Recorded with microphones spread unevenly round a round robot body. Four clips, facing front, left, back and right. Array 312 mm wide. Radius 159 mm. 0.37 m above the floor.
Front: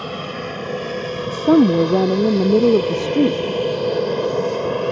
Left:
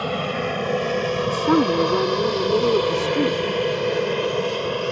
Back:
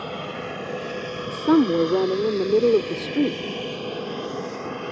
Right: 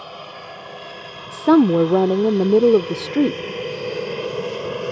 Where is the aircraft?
85° left; by 4.9 s straight ahead.